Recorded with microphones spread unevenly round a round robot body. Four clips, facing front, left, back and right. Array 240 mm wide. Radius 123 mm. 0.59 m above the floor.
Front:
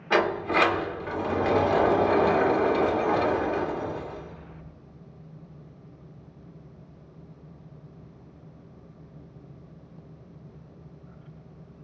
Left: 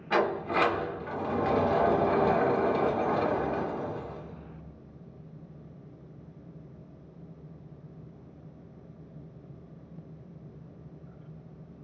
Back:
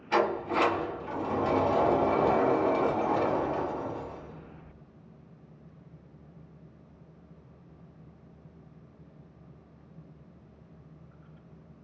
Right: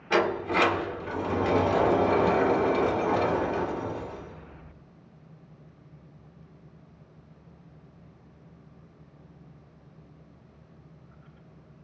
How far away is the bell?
I don't hear a bell.